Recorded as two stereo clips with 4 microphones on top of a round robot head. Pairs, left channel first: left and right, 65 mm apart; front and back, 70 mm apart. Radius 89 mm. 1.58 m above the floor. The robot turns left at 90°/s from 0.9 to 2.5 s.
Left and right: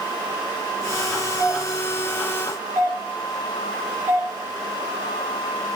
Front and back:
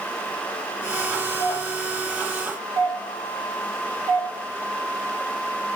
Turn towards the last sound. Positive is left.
turn(degrees=-135)